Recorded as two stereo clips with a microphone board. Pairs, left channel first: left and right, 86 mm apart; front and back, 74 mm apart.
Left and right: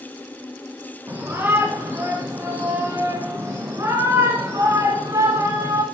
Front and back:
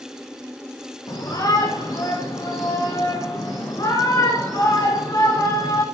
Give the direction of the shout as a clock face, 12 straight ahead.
1 o'clock.